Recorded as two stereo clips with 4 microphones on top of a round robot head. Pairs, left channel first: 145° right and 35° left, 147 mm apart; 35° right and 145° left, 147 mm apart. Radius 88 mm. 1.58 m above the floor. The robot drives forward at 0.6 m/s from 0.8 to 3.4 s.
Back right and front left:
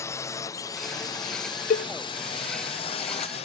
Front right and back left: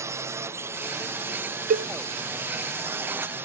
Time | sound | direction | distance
0.0 | a drone | straight behind | ?
1.7 | a cowbell | straight behind | ?